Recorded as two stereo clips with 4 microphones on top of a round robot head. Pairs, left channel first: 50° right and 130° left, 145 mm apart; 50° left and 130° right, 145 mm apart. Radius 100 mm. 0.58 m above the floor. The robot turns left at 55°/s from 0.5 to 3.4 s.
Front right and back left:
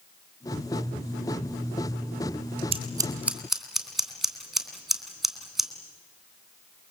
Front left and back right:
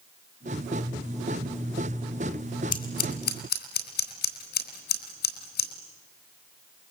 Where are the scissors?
85° left, 3.5 m; by 5.7 s 45° left, 3.5 m.